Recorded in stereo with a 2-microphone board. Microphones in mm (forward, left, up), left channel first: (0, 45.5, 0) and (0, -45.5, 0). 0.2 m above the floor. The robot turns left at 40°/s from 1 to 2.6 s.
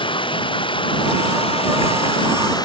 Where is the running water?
110° left; by 2.6 s 50° left.